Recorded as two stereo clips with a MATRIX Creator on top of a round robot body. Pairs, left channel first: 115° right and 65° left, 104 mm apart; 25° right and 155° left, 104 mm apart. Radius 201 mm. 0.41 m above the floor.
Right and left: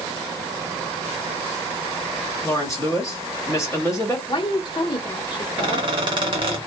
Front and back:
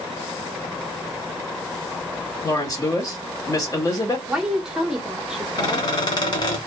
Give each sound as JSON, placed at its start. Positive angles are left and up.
{"t": 2.4, "sound": "a woman speaking", "azimuth_deg": -65, "distance_m": 1.8}
{"t": 4.3, "sound": "a woman speaking", "azimuth_deg": -120, "distance_m": 0.9}
{"t": 5.6, "sound": "a squeak", "azimuth_deg": 25, "distance_m": 0.6}